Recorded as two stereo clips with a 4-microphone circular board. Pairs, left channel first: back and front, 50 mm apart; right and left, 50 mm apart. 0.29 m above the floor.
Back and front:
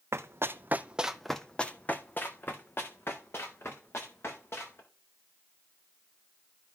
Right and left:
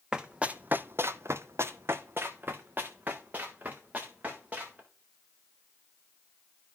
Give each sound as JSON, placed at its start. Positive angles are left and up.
{"t": 0.1, "sound": "running footsteps", "azimuth_deg": 15, "distance_m": 0.7}